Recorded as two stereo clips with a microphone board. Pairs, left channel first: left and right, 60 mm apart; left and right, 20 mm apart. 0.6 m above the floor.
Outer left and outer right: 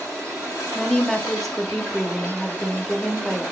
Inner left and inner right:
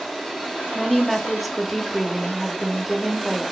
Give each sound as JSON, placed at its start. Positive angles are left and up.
{"t": 0.8, "sound": "a woman speaking", "side_deg": 5, "distance_m": 0.7}